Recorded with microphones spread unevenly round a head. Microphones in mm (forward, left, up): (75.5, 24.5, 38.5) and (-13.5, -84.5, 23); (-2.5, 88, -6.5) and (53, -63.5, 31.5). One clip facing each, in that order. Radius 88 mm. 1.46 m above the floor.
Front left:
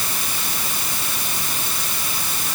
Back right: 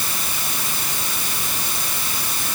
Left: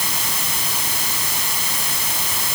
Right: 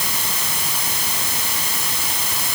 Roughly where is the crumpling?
No crumpling in this recording.